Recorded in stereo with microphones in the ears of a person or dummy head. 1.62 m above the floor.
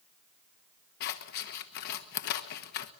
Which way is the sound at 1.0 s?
50° left (ahead or behind).